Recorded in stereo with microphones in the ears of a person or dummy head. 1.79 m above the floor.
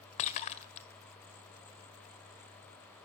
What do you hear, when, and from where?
0.2 s breaking glass: 40° left (ahead or behind), 2.0 m